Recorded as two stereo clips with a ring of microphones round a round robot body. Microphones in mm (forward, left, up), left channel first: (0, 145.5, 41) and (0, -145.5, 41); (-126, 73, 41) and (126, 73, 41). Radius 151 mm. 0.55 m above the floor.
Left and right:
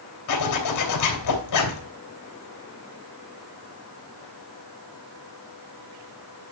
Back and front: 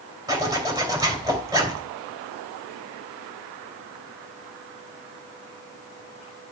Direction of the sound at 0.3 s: 75° left.